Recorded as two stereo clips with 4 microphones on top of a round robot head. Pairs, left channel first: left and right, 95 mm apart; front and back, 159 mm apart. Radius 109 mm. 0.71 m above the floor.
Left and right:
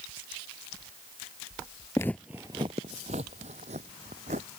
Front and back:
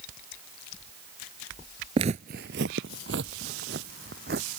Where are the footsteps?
145° left; by 4.5 s 135° right.